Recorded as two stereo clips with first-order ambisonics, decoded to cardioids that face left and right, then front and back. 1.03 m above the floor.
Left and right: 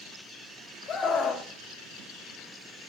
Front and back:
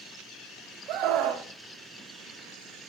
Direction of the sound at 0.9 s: 145° left.